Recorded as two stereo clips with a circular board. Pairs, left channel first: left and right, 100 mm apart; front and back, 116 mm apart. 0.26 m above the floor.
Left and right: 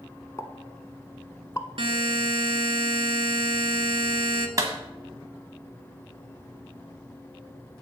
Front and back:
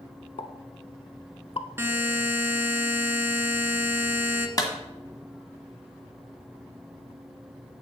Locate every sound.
0.4 s a pop: 30° left, 0.6 m
1.8 s a buzzer: 110° right, 0.8 m
4.6 s a clap: 45° right, 1.5 m